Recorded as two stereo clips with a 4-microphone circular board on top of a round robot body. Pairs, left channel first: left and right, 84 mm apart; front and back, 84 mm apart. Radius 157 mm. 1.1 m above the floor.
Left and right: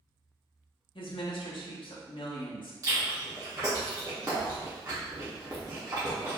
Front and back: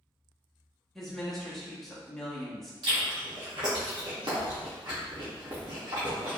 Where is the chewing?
140° right, 0.6 m.